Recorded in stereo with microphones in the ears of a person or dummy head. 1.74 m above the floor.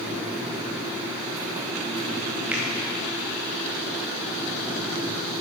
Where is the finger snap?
5° right (ahead or behind), 0.9 m.